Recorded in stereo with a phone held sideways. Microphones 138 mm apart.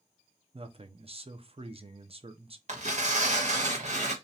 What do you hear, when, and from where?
0.5 s a man speaking: 45° right (ahead or behind), 0.6 m
2.7 s tearing paper: 55° right (ahead or behind), 1.5 m